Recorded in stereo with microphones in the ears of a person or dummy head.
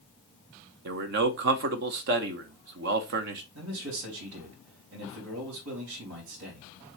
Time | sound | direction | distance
0.8 | a man speaking | 60° right (ahead or behind) | 0.8 m
3.5 | a man speaking | 80° right | 3.5 m